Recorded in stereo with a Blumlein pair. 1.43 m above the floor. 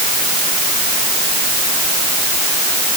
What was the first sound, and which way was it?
Only background noise.